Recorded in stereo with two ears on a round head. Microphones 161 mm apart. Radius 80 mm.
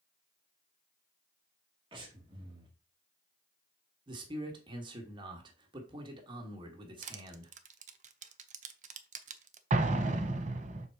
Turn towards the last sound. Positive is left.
turn(degrees=-40)  # may be behind; listen again after turning